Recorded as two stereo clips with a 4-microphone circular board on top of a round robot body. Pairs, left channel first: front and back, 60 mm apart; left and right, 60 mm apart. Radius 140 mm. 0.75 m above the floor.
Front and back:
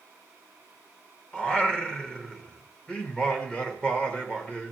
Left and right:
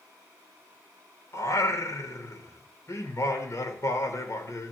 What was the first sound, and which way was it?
Singing, 70° left.